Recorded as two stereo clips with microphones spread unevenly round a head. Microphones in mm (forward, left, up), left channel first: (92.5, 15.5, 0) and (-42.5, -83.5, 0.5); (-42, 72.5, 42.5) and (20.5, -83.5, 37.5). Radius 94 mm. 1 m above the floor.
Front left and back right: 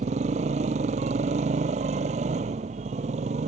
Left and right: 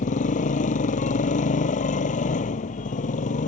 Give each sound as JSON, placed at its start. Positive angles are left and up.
{"t": 0.0, "sound": "a motorcycle", "azimuth_deg": 155}